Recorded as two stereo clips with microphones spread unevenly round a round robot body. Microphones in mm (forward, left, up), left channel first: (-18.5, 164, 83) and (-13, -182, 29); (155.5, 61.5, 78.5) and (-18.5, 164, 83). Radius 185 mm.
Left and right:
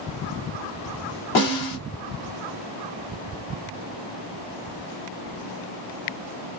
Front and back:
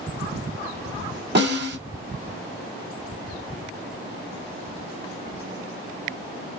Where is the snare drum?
120° left, 2.5 m.